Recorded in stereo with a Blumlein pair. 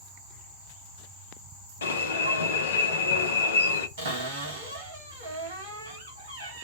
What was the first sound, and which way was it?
An alarm, 65° left.